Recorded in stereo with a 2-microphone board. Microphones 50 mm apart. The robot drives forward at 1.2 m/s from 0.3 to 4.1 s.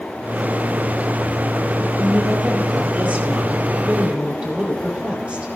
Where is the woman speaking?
35° right (ahead or behind), 4 m; by 5.5 s 25° right (ahead or behind), 6 m.